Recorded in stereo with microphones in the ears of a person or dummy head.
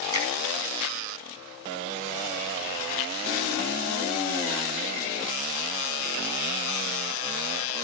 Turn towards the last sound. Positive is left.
turn(degrees=-25)  # may be behind; listen again after turning